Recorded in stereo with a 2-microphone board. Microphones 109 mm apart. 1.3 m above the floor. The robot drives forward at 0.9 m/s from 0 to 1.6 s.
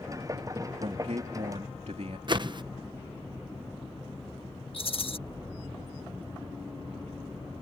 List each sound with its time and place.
0.8 s a man speaking: 80° right
2.3 s a whoosh: 45° right (ahead or behind)
4.7 s a rattle: 55° left (ahead or behind)